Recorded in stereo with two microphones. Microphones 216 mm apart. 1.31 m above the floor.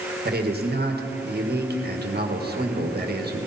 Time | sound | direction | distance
0.2 | a man speaking | 50° right (ahead or behind) | 1.6 m